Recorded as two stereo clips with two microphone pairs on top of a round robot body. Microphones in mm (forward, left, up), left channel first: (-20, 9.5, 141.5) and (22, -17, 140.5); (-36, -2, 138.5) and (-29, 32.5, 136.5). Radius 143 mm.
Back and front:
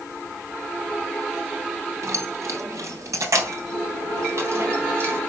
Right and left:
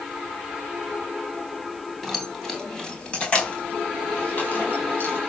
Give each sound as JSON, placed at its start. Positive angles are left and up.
{"t": 2.0, "sound": "keys jangling", "azimuth_deg": -15, "distance_m": 4.0}